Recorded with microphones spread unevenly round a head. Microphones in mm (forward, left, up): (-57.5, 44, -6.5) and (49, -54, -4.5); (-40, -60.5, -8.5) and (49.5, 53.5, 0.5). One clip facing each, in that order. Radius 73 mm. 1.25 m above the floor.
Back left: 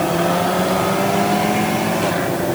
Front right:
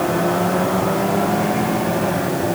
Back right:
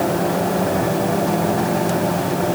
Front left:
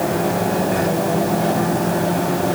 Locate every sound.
Only background noise.